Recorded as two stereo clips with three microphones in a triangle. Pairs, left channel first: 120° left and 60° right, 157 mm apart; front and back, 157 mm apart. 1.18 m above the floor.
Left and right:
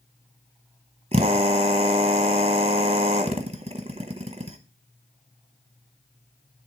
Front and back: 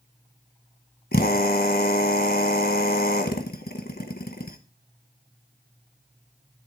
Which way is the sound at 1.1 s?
10° right.